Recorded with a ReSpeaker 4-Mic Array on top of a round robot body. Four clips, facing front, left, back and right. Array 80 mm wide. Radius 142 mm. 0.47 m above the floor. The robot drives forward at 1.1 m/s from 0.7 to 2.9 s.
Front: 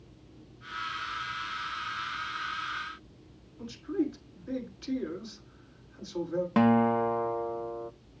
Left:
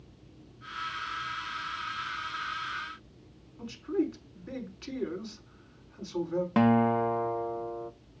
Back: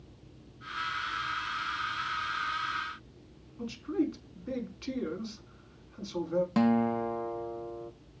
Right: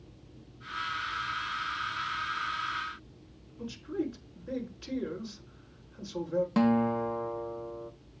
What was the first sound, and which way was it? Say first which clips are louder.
A man speaking: left 4 dB, even; 130° left.